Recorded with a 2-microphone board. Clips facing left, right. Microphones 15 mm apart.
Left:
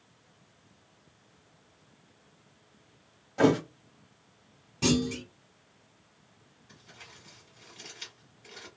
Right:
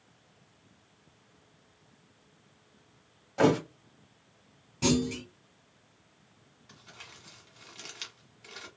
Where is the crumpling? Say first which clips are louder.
Right 2 dB; 45° right (ahead or behind), 1.3 m.